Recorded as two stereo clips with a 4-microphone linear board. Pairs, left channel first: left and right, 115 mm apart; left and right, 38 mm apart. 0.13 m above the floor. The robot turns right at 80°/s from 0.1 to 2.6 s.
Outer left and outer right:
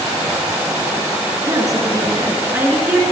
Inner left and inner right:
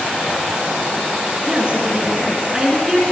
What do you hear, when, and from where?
1.5 s a woman speaking: 125° right, 1.5 m; by 3.0 s 35° right, 1.5 m